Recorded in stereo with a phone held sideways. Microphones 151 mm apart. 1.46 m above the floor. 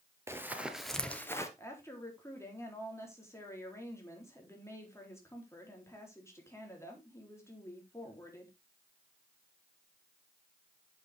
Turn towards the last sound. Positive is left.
turn(degrees=20)  # may be behind; listen again after turning